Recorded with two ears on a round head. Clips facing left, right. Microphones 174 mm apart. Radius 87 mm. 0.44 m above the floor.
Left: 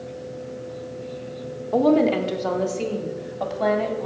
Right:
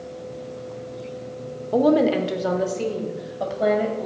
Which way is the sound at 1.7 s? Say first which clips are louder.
Even; 15° right (ahead or behind).